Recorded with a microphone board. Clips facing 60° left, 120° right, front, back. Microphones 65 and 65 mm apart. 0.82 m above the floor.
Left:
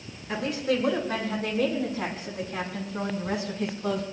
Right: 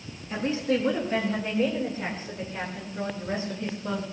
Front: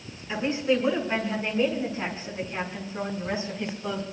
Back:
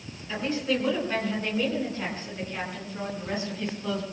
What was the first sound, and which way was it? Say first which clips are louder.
A woman speaking: right 1 dB, front 3 dB; 70° left.